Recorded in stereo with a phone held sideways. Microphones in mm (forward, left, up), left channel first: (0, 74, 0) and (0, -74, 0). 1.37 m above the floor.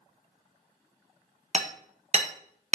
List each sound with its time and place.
1.5 s hammering: 45° right (ahead or behind), 0.7 m